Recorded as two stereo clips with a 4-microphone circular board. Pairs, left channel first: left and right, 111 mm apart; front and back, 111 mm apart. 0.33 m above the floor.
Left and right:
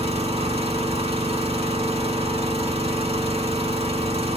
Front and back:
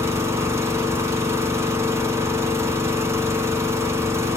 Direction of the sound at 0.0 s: 115° right.